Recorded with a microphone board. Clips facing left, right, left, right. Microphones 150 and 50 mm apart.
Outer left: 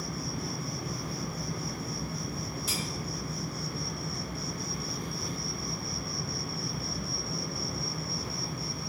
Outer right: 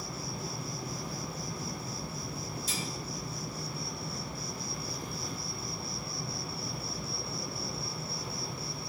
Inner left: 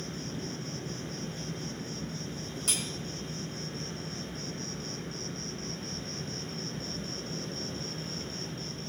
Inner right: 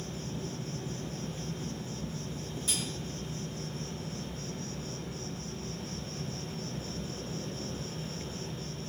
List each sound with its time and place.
0.0 s an insect: 70° left (ahead or behind), 1.6 m
2.7 s cutlery clinking: 75° left (ahead or behind), 2 m